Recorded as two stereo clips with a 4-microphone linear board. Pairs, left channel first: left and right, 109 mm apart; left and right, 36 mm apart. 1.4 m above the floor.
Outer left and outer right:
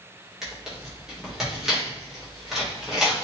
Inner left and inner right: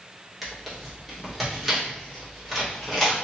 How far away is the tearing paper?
About 1.7 m.